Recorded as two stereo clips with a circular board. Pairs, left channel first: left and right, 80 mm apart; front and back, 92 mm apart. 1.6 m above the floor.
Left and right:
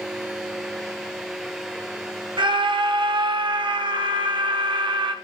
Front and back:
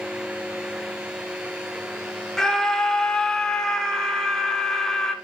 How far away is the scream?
About 1.7 m.